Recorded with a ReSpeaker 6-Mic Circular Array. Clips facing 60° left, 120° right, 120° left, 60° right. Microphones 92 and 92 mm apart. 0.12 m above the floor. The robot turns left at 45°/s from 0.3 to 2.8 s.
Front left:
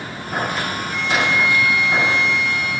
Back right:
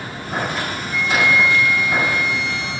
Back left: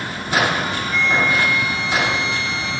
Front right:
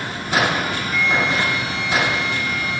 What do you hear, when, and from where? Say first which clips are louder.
0.9 s a flute: back right 3 dB, back left 1 dB; 15° left, 2 m; by 2.8 s 70° right, 2 m